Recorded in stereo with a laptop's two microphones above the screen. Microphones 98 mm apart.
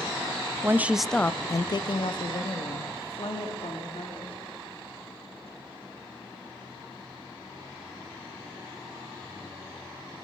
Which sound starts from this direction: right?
A woman speaking, at 0.6 s.